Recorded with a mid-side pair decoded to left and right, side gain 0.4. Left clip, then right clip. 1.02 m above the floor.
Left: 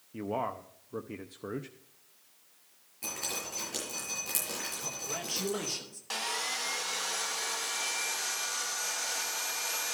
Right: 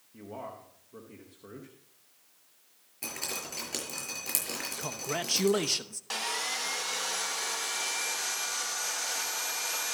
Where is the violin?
I don't hear a violin.